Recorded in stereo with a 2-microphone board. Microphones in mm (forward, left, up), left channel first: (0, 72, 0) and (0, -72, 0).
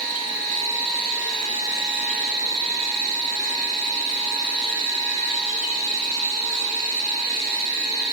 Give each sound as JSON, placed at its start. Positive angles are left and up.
{"t": 0.0, "sound": "an insect", "side_deg": 45, "distance_m": 10.0}